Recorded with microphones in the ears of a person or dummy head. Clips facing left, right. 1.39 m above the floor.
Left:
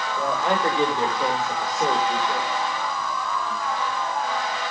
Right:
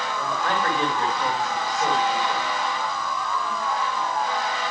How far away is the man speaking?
About 8 m.